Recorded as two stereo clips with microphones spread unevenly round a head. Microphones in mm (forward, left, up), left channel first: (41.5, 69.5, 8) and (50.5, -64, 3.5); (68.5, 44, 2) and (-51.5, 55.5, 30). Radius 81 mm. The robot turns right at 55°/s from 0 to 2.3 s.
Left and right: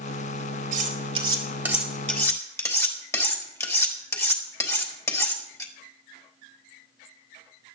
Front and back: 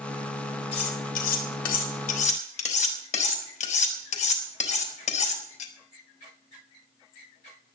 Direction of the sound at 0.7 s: 60° right.